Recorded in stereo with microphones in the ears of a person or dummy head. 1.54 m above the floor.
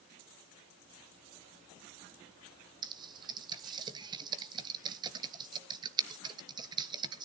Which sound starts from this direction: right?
Typing on a keyboard, at 2.8 s.